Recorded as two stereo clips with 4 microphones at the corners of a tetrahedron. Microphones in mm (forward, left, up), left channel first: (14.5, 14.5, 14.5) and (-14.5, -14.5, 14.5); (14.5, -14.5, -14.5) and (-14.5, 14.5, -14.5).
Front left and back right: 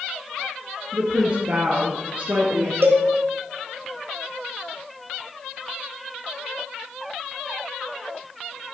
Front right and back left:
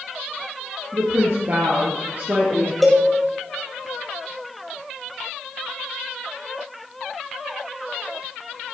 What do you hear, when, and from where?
0.9 s a woman speaking: 165° left, 2.5 m; by 2.7 s straight behind, 3 m
2.8 s a cowbell: 135° right, 2.5 m